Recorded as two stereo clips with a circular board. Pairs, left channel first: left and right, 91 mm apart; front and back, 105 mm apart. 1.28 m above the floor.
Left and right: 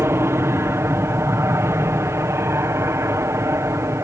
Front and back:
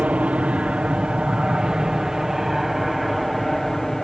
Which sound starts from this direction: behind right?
An aircraft, at 0.0 s.